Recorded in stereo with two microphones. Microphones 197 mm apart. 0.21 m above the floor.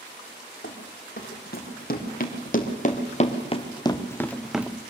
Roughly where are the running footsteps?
Left.